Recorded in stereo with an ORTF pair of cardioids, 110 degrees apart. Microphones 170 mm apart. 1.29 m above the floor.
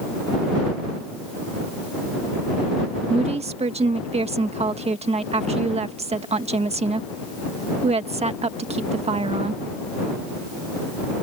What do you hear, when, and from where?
3.1 s a woman speaking: 40° right